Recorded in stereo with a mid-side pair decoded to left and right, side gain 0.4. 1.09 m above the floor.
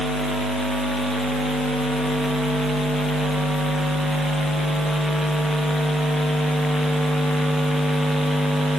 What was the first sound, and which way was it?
Only background noise.